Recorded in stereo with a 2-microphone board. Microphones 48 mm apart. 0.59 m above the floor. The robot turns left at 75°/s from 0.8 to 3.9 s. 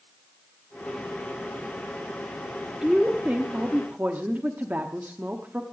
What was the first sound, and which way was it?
A woman speaking, 15° right.